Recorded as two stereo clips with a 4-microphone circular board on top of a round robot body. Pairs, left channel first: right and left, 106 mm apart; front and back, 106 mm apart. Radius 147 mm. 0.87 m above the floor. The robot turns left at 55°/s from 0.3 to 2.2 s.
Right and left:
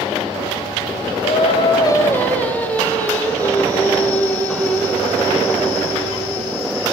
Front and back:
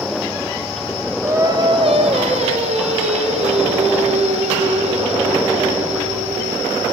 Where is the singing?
110° right, 1.6 m; by 6.7 s 165° right, 1.6 m.